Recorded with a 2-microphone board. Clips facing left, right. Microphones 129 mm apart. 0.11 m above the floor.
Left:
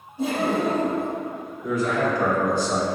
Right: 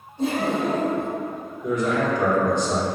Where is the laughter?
10° left (ahead or behind), 2.0 m.